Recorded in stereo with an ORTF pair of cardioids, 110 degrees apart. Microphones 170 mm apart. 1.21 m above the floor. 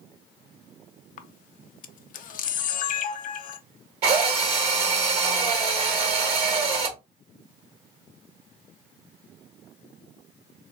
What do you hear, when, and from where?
1.2 s a camera shutter: 55° left, 0.5 m
4.0 s a drill: 70° right, 2 m